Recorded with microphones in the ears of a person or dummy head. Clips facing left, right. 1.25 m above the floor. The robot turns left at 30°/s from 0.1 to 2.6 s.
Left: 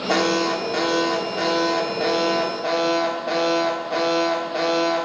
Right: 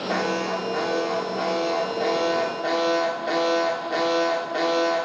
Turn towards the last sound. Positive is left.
turn(degrees=-15)